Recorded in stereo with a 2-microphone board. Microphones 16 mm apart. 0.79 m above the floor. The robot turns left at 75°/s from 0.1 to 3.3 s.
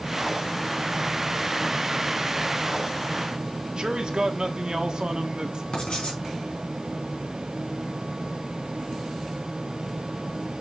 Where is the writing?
80° left, 3.5 m.